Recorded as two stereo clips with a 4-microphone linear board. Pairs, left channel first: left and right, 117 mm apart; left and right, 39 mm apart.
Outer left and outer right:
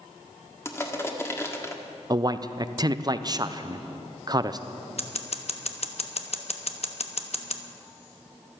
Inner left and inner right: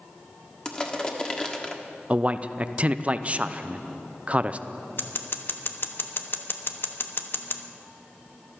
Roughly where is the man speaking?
Right.